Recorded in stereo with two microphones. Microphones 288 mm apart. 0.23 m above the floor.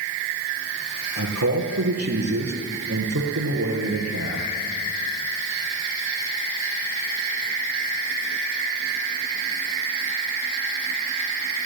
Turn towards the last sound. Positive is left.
turn(degrees=-60)  # may be behind; listen again after turning